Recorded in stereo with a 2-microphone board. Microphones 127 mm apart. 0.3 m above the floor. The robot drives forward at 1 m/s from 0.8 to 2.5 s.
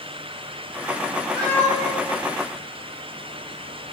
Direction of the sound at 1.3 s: 80° left.